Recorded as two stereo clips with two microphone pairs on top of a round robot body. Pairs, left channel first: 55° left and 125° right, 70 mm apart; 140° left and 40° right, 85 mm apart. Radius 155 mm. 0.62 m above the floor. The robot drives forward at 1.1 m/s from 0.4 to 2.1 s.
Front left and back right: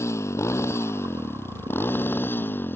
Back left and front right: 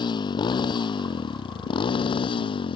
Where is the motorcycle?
105° left; by 2.8 s 115° left.